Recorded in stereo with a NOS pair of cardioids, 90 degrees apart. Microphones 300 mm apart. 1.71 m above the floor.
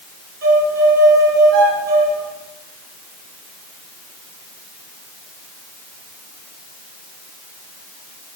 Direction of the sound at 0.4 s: 40° right.